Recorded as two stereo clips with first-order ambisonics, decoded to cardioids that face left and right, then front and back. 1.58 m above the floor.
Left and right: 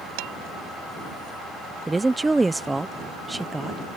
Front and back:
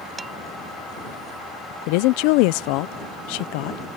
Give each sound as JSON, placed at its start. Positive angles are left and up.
{"t": 0.2, "sound": "dishes clattering", "azimuth_deg": -100}
{"t": 1.9, "sound": "a woman speaking", "azimuth_deg": -10}